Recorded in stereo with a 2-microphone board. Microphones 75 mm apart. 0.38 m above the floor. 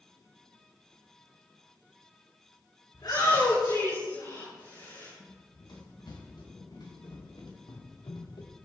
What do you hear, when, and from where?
2.9 s a shout: 70° left (ahead or behind), 5.5 m; by 5.1 s 75° left (ahead or behind), 5.5 m
5.2 s running footsteps: 85° left, 5.5 m; by 8.6 s 75° left (ahead or behind), 2.5 m